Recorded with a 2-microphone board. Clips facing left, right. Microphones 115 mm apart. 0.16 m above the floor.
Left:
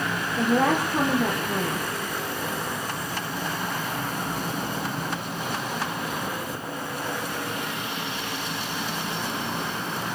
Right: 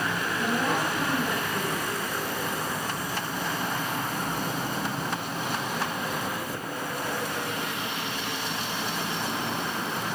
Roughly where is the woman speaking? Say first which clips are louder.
Left 7 dB; left.